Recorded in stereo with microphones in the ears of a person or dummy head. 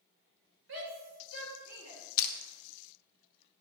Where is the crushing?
55° left (ahead or behind), 0.7 m.